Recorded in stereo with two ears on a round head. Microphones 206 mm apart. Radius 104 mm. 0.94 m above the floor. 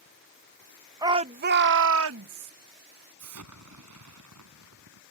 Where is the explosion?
85° right.